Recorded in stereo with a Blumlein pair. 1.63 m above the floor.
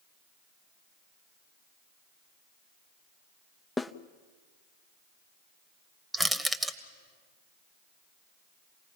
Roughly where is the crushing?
Ahead.